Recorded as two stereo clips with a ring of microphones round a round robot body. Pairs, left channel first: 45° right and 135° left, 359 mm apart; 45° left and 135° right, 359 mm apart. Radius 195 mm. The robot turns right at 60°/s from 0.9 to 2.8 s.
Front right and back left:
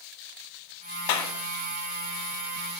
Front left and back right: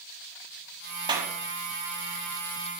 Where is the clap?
55° right, 2.5 m; by 1.3 s 40° right, 2.5 m.